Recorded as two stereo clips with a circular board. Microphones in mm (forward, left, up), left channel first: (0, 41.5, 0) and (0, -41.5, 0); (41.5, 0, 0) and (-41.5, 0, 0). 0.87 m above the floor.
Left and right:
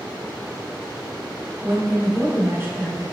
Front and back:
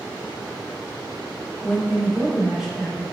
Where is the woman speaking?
105° right, 1.0 m.